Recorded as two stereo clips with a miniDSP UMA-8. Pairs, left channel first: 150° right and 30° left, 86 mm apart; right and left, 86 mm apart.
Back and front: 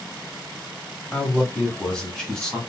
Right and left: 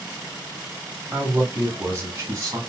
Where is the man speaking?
145° left, 1.3 m; by 2.6 s 130° left, 1.9 m.